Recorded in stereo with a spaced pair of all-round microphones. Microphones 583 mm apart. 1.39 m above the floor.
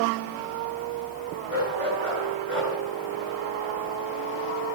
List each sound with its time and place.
1.5 s a dog barking: 65° left (ahead or behind), 8 m; by 2.8 s 60° left (ahead or behind), 8 m